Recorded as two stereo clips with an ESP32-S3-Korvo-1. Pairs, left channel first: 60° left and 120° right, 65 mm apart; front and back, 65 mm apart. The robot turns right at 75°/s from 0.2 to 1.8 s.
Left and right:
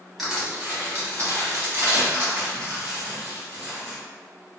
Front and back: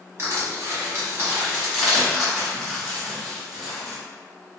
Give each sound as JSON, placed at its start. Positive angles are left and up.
{"t": 0.2, "sound": "crushing", "azimuth_deg": 150, "distance_m": 1.0}